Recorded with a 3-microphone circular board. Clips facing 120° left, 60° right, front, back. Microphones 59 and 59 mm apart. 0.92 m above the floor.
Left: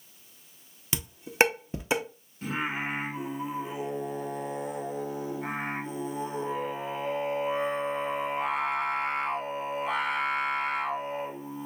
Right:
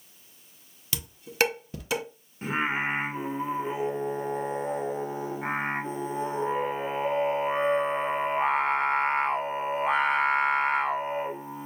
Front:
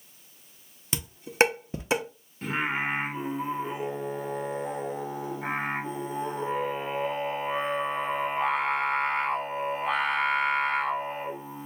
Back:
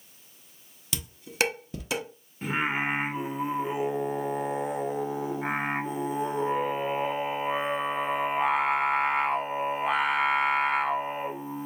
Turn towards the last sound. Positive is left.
turn(degrees=-100)